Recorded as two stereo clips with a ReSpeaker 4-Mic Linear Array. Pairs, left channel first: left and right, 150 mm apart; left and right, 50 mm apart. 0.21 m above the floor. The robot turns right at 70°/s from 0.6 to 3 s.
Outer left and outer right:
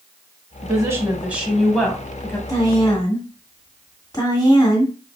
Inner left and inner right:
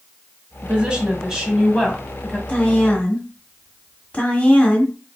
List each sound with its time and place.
0.6 s a woman speaking: 25° right (ahead or behind), 1.1 m; by 2.4 s 20° left (ahead or behind), 1.1 m
2.5 s a woman speaking: 25° left (ahead or behind), 1.5 m